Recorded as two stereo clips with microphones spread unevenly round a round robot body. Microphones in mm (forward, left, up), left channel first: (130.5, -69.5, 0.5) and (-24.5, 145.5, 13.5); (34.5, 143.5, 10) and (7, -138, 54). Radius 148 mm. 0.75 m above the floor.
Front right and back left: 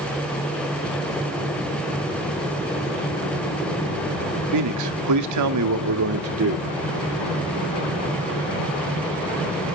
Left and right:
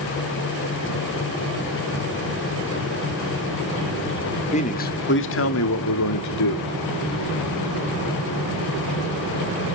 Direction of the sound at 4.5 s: 145° left.